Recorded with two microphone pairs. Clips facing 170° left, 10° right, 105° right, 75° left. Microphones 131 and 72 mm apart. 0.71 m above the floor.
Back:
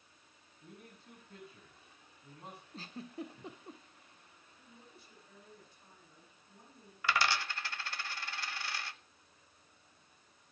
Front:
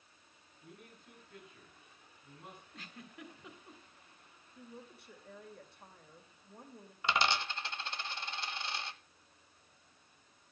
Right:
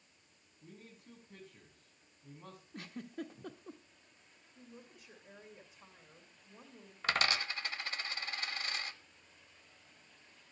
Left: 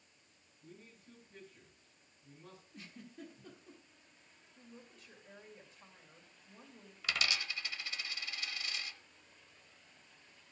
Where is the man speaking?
130° right, 6.5 m.